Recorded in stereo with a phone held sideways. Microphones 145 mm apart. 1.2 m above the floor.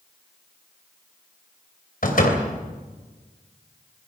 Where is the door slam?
70° left (ahead or behind), 3.5 m.